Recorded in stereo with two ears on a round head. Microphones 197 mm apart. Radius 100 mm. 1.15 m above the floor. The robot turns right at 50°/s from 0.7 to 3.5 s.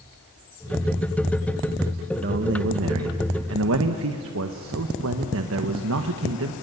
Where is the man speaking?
135° right, 1.3 m; by 6.5 s 70° right, 1.3 m.